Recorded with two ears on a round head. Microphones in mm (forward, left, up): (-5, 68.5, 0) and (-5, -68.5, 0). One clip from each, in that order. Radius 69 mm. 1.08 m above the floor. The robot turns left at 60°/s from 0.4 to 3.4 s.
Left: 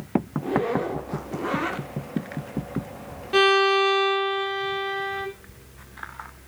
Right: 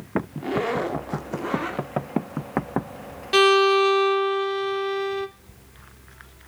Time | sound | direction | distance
0.4 | a zipper | 110° right | 1.0 m
3.3 | a violin | 80° right | 1.1 m